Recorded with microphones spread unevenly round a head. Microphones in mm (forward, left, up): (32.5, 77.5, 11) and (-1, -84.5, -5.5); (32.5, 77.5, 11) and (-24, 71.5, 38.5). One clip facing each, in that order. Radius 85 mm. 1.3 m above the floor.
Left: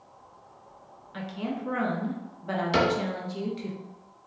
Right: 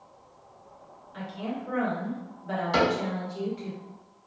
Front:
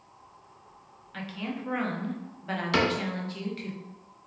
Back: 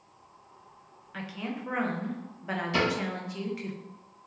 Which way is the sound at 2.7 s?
25° left.